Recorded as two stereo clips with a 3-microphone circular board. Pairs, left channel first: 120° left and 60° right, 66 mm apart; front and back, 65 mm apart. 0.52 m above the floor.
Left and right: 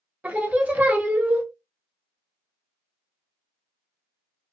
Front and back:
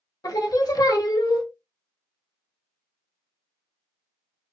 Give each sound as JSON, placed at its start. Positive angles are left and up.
{"t": 0.2, "sound": "singing", "azimuth_deg": 5, "distance_m": 0.7}